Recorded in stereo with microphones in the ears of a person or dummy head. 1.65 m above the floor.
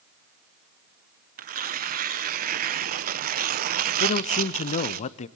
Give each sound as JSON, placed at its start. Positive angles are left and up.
{"t": 1.4, "sound": "tearing paper", "side_deg": -40, "distance_m": 0.8}
{"t": 4.0, "sound": "a man speaking", "side_deg": 35, "distance_m": 0.7}